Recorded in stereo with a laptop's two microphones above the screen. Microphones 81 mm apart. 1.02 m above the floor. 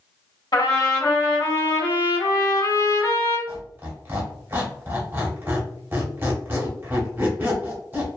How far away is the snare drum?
No snare drum in this recording.